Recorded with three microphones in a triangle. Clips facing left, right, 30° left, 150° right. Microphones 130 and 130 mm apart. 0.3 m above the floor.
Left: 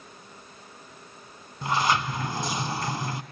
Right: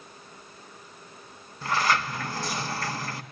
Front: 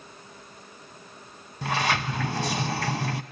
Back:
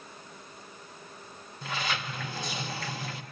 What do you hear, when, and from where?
1.6 s a sliding door: 20° left, 0.7 m